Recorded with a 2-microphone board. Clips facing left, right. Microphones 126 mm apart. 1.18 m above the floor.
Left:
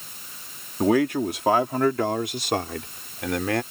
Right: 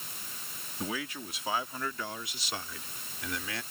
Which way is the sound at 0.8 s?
70° left (ahead or behind).